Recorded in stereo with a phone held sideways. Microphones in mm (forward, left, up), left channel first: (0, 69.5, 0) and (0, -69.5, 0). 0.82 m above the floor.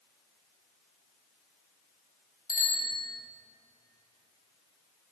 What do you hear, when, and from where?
2.5 s a bicycle bell: 80° left, 3.5 m